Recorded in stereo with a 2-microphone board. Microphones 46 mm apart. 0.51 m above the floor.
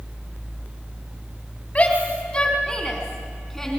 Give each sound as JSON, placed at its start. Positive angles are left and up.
{"t": 1.8, "sound": "a shout", "side_deg": 30, "distance_m": 3.5}